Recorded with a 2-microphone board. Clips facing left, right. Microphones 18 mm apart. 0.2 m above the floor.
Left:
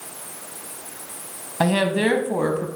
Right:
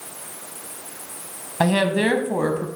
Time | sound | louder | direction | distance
1.6 | a woman speaking | right 1 dB | 5° right (ahead or behind) | 1.0 m